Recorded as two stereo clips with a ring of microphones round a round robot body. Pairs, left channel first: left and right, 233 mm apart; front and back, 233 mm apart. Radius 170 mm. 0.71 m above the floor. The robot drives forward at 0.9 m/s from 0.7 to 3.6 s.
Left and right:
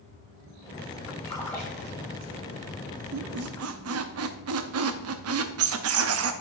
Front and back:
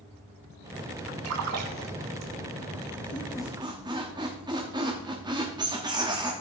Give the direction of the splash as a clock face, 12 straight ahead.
6 o'clock.